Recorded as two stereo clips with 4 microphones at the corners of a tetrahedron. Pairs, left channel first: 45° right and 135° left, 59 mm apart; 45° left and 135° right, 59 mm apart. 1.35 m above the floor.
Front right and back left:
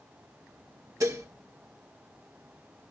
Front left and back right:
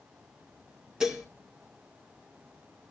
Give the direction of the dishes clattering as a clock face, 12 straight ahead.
7 o'clock.